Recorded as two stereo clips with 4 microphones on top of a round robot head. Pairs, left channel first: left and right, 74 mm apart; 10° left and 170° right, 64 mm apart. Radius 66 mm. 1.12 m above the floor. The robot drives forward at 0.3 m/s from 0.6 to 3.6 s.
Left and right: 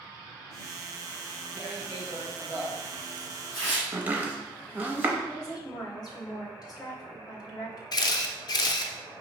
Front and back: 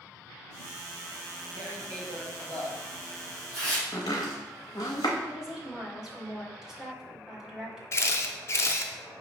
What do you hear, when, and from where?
1.5 s tearing paper: 155° right, 2.0 m; by 3.8 s 160° right, 2.5 m
3.9 s chopping: 30° right, 0.5 m
5.3 s a woman speaking: 115° left, 1.2 m
7.9 s a camera shutter: 60° left, 0.5 m